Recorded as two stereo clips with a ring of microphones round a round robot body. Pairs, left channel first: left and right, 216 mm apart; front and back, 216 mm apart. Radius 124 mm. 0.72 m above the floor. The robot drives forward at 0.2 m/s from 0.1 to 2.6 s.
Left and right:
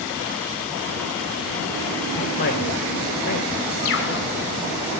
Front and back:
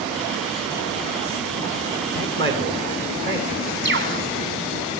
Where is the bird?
140° left, 2.5 m.